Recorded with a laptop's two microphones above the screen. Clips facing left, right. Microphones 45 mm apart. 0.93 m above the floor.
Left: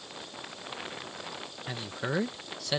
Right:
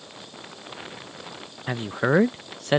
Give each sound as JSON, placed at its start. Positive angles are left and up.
{"t": 1.7, "sound": "a man speaking", "side_deg": -40}